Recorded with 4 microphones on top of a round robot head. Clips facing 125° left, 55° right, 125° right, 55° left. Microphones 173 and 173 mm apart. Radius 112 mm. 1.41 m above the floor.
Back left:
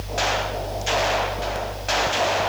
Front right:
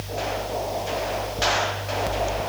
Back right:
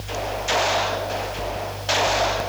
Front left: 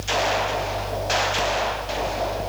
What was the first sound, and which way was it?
Only background noise.